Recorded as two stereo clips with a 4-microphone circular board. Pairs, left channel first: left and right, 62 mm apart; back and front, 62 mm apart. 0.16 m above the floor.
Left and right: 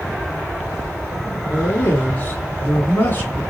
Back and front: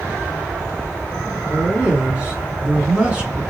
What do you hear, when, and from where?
1.5 s a man speaking: 60° left, 2 m